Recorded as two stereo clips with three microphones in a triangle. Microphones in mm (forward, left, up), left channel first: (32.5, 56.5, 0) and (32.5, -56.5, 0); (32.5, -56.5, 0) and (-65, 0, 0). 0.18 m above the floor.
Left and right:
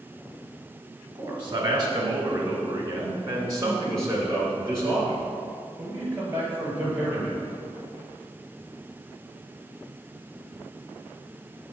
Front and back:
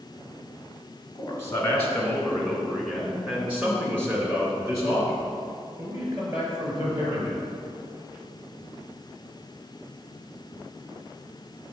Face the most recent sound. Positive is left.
turn(degrees=-160)